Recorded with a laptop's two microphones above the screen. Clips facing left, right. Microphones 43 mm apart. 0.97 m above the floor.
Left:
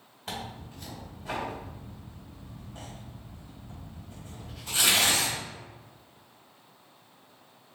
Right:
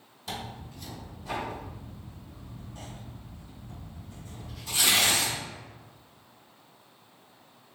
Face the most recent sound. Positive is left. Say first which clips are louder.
# even
turn(degrees=45)  # may be behind; listen again after turning